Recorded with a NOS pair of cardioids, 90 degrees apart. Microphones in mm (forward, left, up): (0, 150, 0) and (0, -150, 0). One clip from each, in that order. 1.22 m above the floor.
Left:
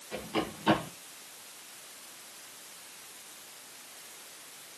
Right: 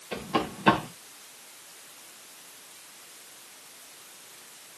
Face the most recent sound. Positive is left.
turn(degrees=-70)